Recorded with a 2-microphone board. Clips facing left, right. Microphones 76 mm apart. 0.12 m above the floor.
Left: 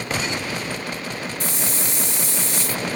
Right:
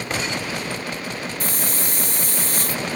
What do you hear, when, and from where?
1.4 s a hiss: 45° right (ahead or behind), 2.5 m